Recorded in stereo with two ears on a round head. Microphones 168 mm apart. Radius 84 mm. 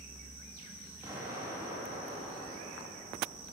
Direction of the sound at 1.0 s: 15° right (ahead or behind).